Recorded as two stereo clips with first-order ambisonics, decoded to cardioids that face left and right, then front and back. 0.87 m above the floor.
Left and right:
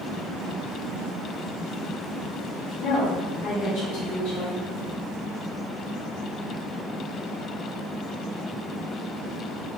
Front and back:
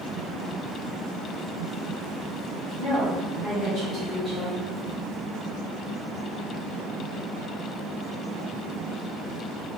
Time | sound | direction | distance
2.8 | a woman speaking | 110° left | 1.8 m